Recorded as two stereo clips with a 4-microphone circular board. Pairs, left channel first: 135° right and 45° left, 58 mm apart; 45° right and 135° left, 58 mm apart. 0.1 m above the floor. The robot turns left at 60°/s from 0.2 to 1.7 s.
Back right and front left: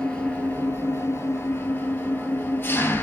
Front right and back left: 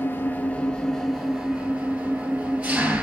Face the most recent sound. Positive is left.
turn(degrees=-165)